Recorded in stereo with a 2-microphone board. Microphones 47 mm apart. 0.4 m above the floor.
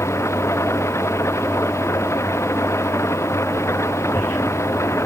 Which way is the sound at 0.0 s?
90° left.